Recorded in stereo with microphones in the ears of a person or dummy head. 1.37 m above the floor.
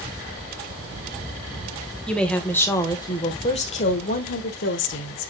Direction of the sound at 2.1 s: 5° left (ahead or behind).